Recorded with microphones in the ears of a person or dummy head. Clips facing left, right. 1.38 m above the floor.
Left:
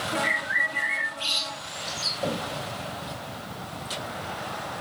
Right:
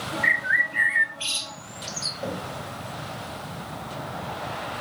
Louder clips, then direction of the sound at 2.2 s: Left 3 dB; 5° left (ahead or behind).